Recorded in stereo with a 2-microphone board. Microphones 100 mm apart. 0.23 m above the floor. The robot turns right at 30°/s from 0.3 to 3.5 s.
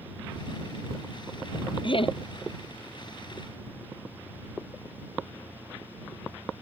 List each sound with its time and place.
1.8 s laughter: 55° left (ahead or behind); by 2.2 s 65° left (ahead or behind)